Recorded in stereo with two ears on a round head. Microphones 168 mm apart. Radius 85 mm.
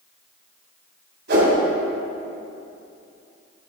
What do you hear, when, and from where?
1.3 s a whoosh: 65° right (ahead or behind), 2.5 m